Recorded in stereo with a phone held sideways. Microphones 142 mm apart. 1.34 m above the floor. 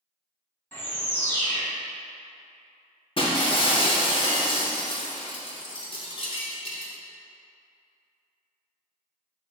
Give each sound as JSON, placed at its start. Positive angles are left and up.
{"t": 0.7, "sound": "a bird", "side_deg": 15, "distance_m": 0.9}
{"t": 3.2, "sound": "breaking glass", "side_deg": 40, "distance_m": 0.6}